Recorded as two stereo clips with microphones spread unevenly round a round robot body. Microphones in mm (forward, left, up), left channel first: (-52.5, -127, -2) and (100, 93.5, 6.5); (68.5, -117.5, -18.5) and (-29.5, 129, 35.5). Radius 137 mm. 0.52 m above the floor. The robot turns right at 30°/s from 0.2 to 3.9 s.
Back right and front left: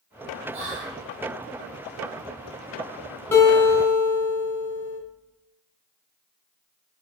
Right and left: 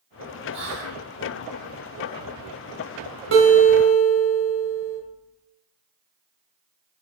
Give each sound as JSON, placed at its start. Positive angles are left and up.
{"t": 0.5, "sound": "whispering", "azimuth_deg": 65, "distance_m": 1.2}
{"t": 3.3, "sound": "a guitar", "azimuth_deg": 155, "distance_m": 0.9}